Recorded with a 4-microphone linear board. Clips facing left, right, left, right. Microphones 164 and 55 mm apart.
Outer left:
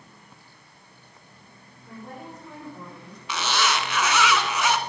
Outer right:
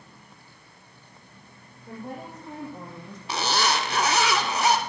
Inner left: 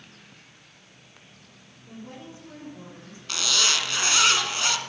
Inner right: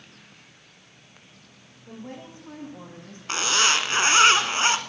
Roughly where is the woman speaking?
Right.